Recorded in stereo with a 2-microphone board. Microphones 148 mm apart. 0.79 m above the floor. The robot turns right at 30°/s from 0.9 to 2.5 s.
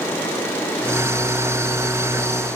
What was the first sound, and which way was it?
Only background noise.